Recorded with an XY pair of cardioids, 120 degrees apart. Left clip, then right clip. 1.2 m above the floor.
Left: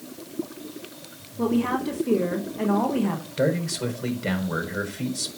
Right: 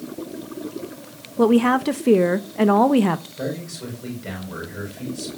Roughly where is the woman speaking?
Ahead right.